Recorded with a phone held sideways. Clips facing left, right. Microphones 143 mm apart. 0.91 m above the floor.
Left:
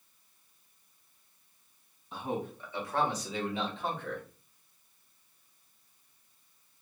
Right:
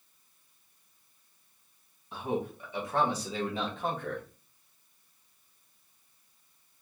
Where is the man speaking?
5° right (ahead or behind), 1.2 m; by 4.2 s 50° right (ahead or behind), 1.4 m.